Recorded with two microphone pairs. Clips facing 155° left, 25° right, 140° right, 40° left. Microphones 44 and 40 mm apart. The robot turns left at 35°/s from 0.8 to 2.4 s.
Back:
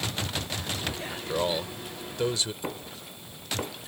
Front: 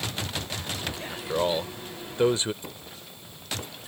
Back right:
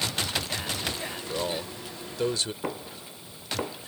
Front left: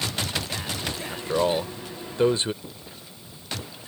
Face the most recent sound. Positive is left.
turn(degrees=-145)